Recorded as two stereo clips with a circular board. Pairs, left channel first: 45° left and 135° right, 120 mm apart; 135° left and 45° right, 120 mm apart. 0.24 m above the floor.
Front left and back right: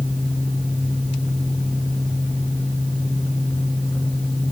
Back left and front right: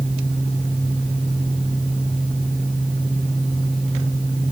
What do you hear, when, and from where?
Only background noise.